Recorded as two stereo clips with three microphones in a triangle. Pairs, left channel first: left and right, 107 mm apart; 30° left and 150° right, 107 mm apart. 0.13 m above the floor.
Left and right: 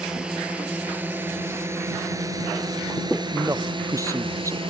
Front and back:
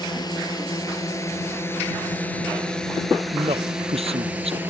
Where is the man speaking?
150° right.